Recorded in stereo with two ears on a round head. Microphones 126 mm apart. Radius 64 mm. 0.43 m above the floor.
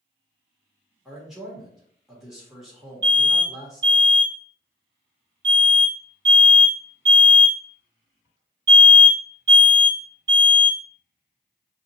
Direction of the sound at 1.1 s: 5° right (ahead or behind).